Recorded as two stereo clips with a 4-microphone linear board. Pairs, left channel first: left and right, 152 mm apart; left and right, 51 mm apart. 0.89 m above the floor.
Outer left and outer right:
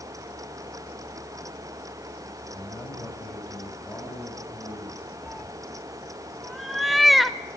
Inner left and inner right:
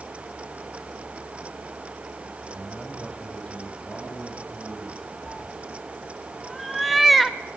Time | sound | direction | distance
2.5 | a man speaking | 15° left (ahead or behind) | 6 m
5.2 | a cat meowing | centre (ahead or behind) | 1.1 m